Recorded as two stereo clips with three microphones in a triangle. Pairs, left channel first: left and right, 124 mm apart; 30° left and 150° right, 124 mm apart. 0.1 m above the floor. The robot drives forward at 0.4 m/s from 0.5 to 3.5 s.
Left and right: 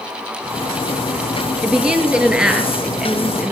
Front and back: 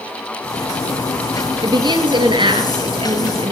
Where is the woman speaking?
165° right, 1.8 m; by 3.5 s 170° right, 2.5 m.